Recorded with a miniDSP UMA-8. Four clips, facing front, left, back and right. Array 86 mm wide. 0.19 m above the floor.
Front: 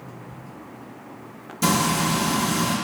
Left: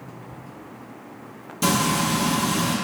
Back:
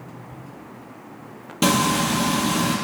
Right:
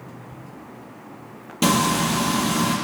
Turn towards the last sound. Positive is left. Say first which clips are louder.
# right 2 dB, back 2 dB
turn(degrees=-150)